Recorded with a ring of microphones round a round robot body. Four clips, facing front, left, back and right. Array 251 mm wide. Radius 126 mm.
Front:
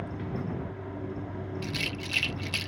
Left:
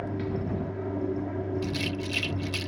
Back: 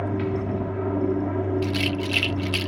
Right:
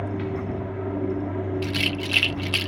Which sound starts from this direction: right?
A rattle, at 1.6 s.